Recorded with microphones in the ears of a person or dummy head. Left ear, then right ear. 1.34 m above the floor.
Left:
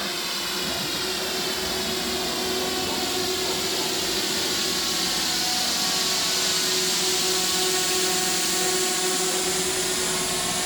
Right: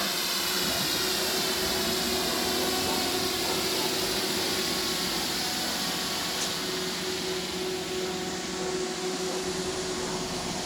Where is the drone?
Centre (ahead or behind); by 10.7 s 50° left (ahead or behind).